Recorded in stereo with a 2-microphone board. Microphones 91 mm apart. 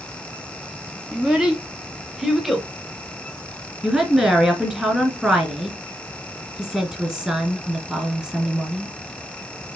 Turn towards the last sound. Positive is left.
turn(degrees=-10)  # may be behind; listen again after turning